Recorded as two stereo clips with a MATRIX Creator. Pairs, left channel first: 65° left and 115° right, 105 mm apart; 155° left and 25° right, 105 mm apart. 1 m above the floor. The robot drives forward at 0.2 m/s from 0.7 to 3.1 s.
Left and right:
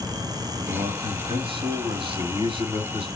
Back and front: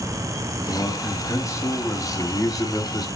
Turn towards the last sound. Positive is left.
turn(degrees=-150)